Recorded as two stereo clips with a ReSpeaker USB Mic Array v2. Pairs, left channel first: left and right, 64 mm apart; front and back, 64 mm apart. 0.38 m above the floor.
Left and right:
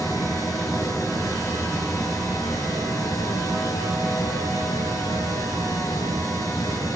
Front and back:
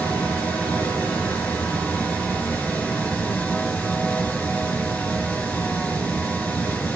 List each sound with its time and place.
0.0 s running water: 65° left, 4 m